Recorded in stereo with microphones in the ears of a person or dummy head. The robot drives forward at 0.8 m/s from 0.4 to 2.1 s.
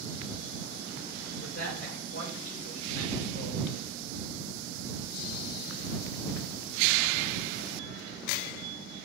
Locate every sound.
1.4 s a man speaking: 60° left (ahead or behind), 2.5 m; by 3.6 s 50° left (ahead or behind), 3 m